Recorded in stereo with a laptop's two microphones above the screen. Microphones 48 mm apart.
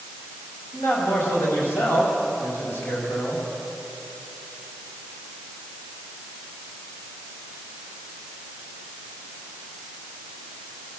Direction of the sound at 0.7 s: 60° left (ahead or behind).